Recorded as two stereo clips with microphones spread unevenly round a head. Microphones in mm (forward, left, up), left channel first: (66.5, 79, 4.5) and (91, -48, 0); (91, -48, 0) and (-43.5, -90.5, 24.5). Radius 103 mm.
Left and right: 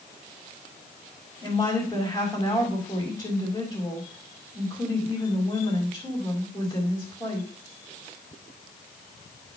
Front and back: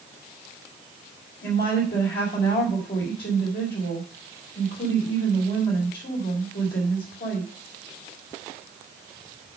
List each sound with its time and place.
1.4 s a woman speaking: 30° left, 4.5 m